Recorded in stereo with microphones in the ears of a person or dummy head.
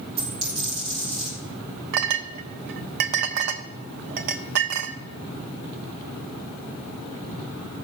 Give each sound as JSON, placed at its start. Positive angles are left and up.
{"t": 0.2, "sound": "a dropped coin", "side_deg": -30, "distance_m": 5.0}
{"t": 1.9, "sound": "a clink", "side_deg": -50, "distance_m": 0.8}